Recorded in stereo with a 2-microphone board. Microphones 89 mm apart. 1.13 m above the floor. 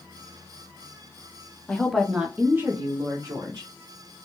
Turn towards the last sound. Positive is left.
turn(degrees=-40)  # may be behind; listen again after turning